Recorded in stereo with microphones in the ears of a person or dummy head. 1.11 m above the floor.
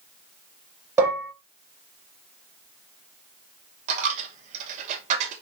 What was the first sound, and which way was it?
Dishes clattering, 15° right (ahead or behind).